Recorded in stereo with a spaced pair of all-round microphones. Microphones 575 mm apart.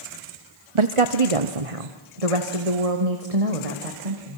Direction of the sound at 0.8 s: 55° right (ahead or behind).